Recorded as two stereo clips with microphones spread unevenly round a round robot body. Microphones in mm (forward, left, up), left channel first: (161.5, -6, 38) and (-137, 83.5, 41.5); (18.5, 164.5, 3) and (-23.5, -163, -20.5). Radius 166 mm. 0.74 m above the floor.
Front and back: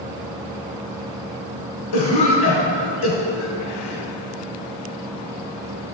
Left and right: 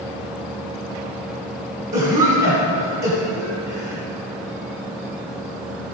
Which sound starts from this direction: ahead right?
A cough, at 1.9 s.